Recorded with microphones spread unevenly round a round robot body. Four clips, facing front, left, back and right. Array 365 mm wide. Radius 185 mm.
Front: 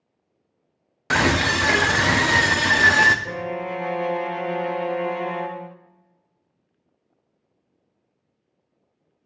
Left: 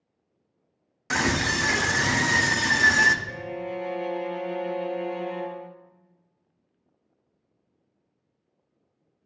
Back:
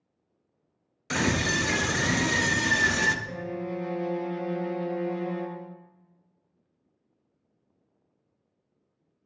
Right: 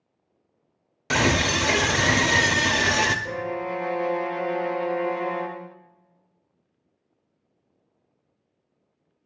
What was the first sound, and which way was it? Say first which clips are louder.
A scream: right 3 dB, front 6 dB; 45° right.